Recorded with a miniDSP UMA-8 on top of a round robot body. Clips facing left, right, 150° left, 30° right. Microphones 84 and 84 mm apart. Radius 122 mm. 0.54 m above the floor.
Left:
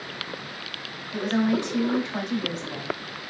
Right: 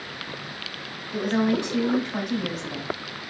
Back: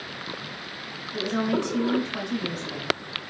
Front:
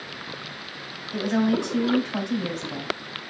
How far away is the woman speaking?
About 2.5 m.